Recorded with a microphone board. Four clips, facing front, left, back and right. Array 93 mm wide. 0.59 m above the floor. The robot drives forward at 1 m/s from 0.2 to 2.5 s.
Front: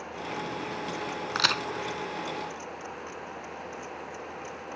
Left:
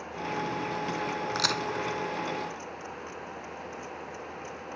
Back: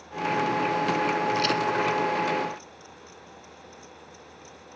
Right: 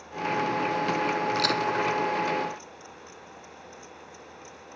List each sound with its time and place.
1.4 s a crack: 10° left